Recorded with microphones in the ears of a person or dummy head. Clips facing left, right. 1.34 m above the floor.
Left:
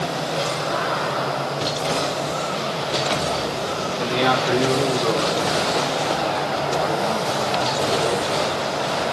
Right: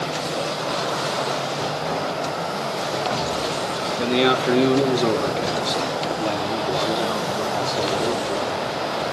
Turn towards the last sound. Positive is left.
turn(degrees=-75)  # may be behind; listen again after turning